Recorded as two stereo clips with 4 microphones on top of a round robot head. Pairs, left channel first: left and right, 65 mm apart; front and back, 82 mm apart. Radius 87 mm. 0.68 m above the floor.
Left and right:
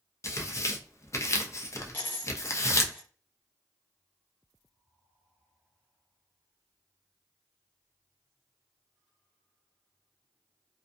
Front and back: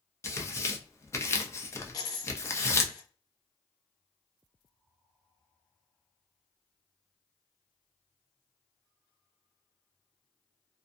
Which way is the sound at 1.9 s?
35° left.